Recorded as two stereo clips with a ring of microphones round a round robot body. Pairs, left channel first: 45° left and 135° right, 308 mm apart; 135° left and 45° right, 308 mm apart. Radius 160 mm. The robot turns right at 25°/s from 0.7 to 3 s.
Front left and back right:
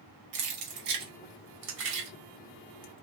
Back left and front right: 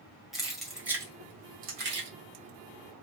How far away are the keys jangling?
About 1.5 m.